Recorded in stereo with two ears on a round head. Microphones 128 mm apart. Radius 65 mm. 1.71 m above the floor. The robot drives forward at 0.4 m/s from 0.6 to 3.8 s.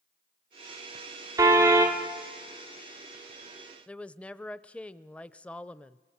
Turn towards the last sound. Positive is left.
turn(degrees=10)  # may be behind; listen again after turning